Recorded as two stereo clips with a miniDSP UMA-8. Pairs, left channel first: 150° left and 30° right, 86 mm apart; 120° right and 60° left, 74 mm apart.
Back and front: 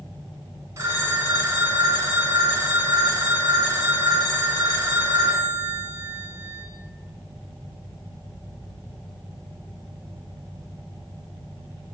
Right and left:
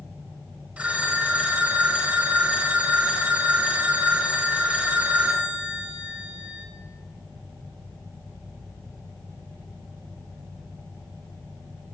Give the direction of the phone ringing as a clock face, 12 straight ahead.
12 o'clock.